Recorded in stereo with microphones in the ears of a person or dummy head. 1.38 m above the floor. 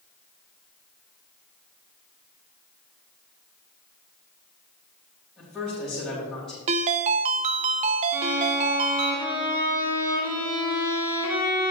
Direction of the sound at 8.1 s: 15° right (ahead or behind).